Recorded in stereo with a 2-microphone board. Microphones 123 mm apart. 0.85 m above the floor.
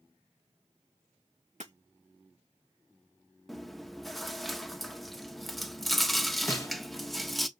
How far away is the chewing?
About 0.8 m.